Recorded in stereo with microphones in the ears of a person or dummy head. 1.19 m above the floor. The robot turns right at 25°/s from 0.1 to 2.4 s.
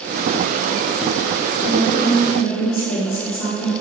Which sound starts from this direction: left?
A woman speaking, at 1.6 s.